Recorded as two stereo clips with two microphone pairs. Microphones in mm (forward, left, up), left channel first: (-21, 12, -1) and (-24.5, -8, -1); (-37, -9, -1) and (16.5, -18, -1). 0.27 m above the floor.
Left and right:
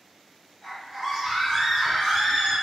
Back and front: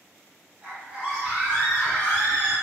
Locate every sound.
0.6 s a scream: 40° right, 1.9 m; by 2.5 s 155° left, 1.6 m